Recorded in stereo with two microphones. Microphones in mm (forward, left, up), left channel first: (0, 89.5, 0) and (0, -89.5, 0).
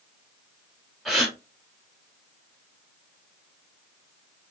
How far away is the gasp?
About 0.8 m.